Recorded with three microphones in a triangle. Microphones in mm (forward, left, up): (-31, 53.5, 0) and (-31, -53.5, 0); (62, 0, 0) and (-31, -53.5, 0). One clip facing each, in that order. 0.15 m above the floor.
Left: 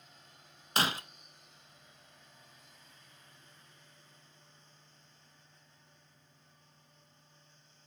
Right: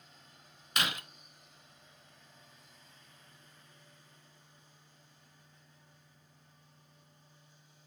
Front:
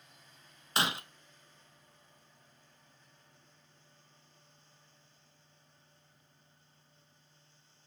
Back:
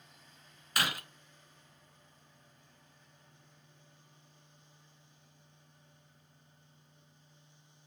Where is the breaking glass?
70° left, 0.6 m.